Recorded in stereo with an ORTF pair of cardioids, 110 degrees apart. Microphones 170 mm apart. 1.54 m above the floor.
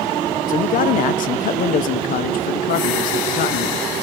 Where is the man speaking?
55° left, 0.7 m.